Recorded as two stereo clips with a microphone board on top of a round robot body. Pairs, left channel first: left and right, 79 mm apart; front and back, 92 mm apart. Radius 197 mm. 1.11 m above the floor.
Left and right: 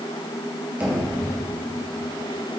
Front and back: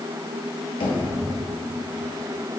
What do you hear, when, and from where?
0.8 s knocking: 20° right, 2.5 m